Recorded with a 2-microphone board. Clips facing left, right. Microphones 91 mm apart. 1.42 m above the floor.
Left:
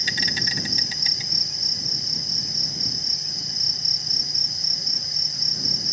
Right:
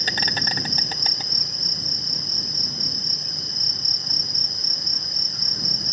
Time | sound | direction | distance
0.0 | an insect | 50° right (ahead or behind) | ?